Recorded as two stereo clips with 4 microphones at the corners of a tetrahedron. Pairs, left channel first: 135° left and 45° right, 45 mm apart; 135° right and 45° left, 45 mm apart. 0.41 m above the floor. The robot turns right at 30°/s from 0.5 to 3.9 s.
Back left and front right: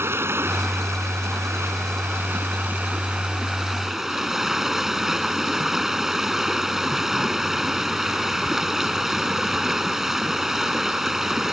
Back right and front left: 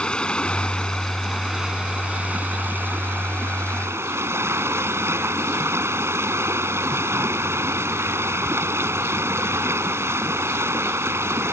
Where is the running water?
65° right; by 11.5 s 35° left.